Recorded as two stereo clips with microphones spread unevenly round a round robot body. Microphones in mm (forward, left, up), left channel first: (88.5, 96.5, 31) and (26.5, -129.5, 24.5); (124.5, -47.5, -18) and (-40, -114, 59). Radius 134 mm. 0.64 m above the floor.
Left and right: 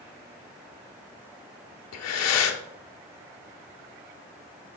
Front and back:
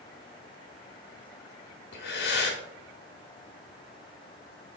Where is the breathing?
60° left, 1.0 m.